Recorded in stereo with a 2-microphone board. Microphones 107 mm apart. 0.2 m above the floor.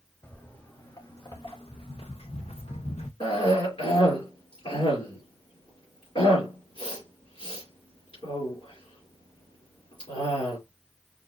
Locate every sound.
0.2 s footsteps: 20° left (ahead or behind), 1.4 m; by 3.1 s 85° left, 1.2 m
3.2 s a cough: 65° left (ahead or behind), 3.5 m